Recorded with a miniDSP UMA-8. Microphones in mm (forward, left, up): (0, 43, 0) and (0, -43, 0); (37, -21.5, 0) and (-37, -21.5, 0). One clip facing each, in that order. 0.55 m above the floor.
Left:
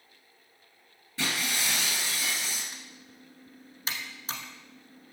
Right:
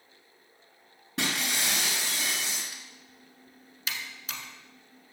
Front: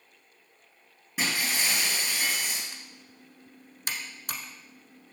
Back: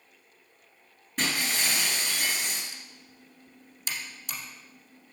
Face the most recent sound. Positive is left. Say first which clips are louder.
# left 2 dB, front 1 dB
turn(degrees=35)